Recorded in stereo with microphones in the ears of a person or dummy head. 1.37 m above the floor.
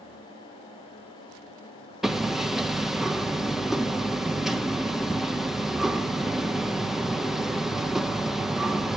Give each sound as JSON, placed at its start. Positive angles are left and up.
{"t": 2.0, "sound": "hammering", "side_deg": -5, "distance_m": 0.8}